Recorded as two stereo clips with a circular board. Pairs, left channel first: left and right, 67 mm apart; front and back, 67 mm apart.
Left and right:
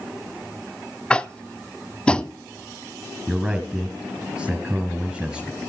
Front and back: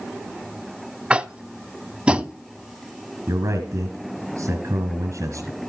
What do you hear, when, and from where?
1.1 s tapping: 140° left, 0.5 m
3.3 s a man speaking: 170° right, 2.5 m